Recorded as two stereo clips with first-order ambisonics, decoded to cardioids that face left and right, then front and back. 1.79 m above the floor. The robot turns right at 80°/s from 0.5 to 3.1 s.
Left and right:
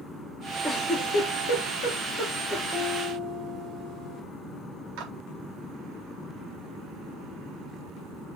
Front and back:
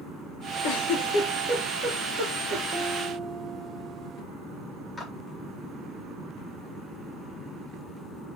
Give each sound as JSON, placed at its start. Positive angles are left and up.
{"t": 0.6, "sound": "a giggle", "azimuth_deg": 10, "distance_m": 5.5}
{"t": 2.7, "sound": "a piano", "azimuth_deg": -135, "distance_m": 2.5}
{"t": 5.0, "sound": "a clap", "azimuth_deg": -85, "distance_m": 4.0}